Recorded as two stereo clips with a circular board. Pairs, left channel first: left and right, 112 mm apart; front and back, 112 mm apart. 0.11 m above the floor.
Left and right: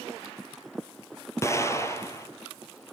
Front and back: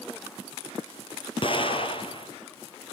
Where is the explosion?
30° left, 1.6 m.